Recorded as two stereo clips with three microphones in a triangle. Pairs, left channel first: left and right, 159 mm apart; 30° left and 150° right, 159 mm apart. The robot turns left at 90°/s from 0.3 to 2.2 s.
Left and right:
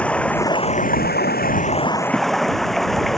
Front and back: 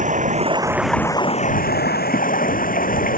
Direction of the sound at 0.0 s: 175° left.